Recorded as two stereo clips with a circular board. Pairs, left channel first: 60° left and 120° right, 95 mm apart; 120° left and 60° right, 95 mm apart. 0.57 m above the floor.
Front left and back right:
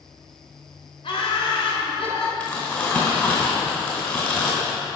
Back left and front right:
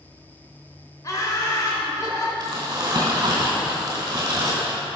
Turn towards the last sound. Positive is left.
turn(degrees=-10)